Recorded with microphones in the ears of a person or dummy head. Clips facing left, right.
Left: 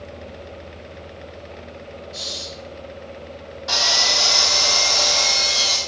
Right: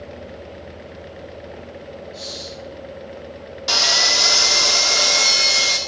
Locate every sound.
2.1 s breathing: 50° left (ahead or behind), 5.5 m
3.7 s sawing: 40° right (ahead or behind), 1.1 m